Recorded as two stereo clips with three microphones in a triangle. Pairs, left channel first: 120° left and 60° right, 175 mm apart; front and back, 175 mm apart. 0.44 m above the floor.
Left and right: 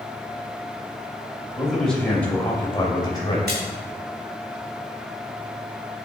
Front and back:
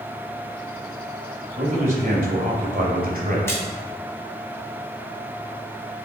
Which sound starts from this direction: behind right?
A man speaking, at 1.6 s.